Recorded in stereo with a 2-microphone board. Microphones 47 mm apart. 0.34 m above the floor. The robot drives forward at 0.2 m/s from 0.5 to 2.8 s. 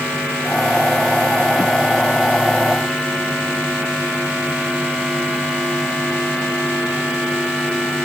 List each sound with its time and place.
Only background noise.